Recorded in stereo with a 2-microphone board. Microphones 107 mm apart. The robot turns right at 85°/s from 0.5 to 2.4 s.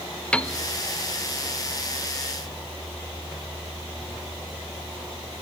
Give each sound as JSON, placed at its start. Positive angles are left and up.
{"t": 0.3, "sound": "a piano", "side_deg": 10, "distance_m": 0.6}